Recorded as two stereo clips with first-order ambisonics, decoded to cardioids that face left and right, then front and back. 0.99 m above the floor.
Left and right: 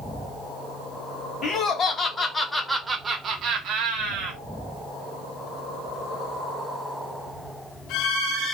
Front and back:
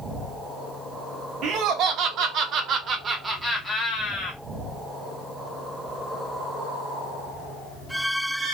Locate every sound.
1.4 s laughter: 145° left, 1.0 m; by 4.4 s 70° right, 0.9 m